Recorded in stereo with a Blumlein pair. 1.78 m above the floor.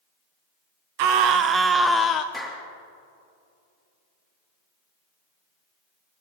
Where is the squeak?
No squeak in this recording.